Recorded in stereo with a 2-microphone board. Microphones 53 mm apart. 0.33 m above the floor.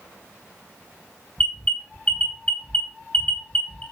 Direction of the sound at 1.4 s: 25° left (ahead or behind).